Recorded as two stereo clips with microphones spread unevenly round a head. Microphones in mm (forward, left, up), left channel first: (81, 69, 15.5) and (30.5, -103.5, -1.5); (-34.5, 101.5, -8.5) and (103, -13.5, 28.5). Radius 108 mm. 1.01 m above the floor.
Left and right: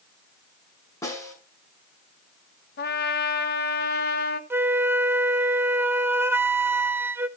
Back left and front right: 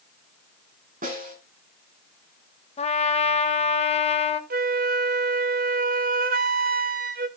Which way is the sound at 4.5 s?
45° right.